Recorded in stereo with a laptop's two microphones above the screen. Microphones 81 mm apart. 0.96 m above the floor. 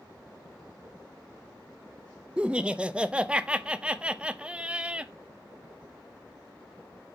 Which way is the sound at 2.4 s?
15° right (ahead or behind).